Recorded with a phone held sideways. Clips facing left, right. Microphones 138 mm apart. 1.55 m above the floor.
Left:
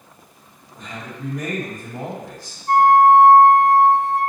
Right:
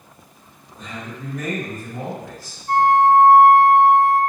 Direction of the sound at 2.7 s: 55° left (ahead or behind).